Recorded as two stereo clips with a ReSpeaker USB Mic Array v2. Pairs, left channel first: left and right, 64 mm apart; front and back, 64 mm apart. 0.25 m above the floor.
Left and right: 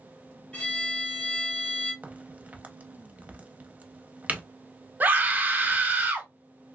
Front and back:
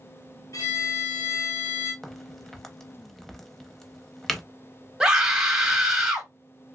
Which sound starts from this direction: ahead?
A violin, at 0.5 s.